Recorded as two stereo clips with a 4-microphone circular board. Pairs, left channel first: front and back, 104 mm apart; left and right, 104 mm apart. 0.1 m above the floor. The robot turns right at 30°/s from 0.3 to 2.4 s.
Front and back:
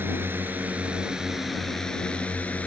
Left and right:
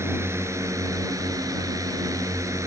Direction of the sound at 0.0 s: 130° right.